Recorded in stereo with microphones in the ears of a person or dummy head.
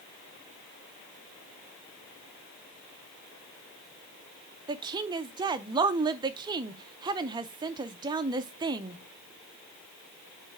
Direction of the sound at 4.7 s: 20° right (ahead or behind).